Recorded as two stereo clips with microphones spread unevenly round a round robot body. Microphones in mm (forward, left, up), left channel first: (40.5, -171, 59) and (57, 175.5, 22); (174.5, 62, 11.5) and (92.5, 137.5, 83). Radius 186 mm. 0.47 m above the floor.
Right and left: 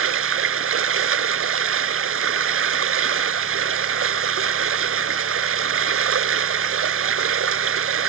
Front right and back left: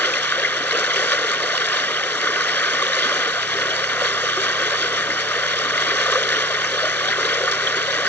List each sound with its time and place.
0.0 s running water: 35° left